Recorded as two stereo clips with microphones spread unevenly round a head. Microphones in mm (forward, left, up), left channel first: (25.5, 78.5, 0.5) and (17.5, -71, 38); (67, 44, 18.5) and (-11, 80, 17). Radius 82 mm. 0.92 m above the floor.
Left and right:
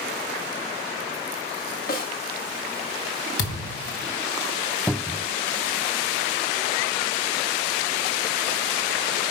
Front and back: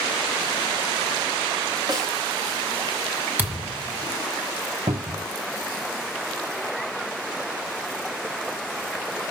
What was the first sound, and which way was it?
A snare drum, 120° left.